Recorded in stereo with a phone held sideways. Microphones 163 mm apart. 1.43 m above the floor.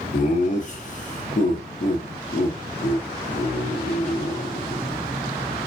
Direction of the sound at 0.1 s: 45° left (ahead or behind).